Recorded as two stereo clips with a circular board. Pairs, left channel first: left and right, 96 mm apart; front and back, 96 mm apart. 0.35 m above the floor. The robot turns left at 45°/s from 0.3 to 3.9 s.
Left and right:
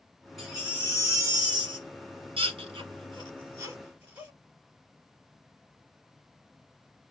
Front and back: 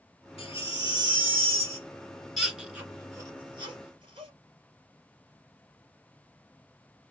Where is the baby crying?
Straight ahead, 1.6 m; by 4.3 s 160° right, 1.6 m.